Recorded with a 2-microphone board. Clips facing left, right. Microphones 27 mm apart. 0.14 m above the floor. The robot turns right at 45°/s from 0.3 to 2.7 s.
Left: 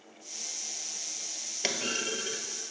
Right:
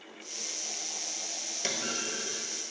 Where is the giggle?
I don't hear a giggle.